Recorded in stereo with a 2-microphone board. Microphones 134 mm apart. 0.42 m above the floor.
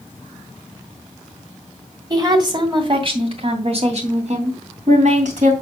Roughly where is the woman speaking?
Right.